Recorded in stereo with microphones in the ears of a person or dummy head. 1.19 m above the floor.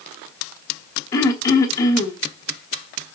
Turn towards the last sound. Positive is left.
turn(degrees=20)  # may be behind; listen again after turning